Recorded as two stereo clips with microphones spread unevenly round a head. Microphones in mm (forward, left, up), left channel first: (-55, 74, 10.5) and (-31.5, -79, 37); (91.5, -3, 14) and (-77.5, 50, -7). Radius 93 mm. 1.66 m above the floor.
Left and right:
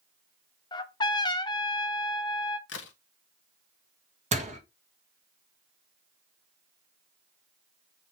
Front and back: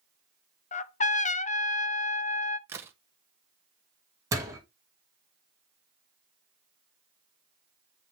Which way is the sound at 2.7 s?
85° left.